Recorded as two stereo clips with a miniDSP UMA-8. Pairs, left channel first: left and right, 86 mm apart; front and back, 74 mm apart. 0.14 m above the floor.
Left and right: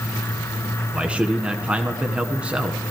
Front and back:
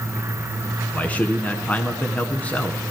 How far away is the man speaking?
About 1.1 m.